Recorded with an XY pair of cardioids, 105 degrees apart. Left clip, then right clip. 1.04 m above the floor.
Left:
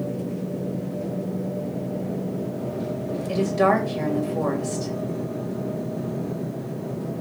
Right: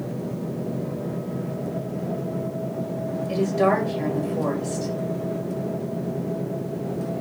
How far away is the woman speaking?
About 2 m.